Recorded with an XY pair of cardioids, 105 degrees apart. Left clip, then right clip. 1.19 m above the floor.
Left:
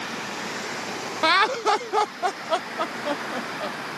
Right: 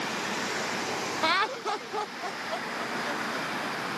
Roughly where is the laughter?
Ahead left.